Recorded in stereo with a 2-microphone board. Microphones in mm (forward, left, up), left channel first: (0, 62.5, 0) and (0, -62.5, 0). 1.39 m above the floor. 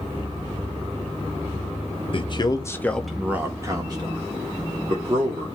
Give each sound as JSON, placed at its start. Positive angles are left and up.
{"t": 2.1, "sound": "a man speaking", "side_deg": 45, "distance_m": 0.7}